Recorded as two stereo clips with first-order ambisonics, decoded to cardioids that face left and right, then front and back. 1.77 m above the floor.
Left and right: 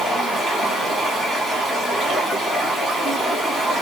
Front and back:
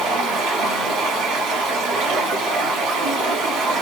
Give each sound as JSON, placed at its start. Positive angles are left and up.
{"t": 0.0, "sound": "running water", "azimuth_deg": -175, "distance_m": 1.2}